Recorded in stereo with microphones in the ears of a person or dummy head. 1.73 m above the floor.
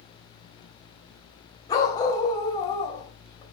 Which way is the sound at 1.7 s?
20° left (ahead or behind).